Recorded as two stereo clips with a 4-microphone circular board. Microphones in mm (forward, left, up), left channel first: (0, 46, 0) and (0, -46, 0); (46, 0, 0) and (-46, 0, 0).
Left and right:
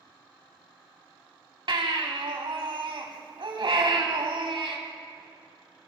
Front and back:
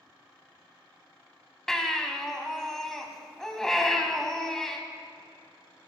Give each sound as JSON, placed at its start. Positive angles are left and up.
{"t": 1.7, "sound": "a baby crying", "azimuth_deg": -85, "distance_m": 1.1}